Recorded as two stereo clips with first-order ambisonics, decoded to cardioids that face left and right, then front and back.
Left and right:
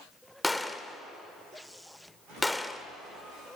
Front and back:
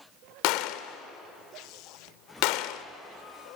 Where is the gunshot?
5° left, 1.0 m.